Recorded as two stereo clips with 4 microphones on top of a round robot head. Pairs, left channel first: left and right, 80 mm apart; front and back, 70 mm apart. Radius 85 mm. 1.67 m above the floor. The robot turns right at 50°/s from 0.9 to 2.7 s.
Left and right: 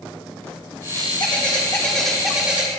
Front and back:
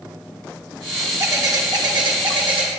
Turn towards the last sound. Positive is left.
turn(degrees=-155)